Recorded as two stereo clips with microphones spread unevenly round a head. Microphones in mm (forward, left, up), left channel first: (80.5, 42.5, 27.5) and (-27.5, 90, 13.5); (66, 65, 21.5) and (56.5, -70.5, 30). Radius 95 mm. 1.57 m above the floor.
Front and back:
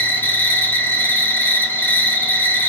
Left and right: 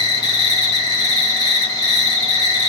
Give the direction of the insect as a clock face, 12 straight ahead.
11 o'clock.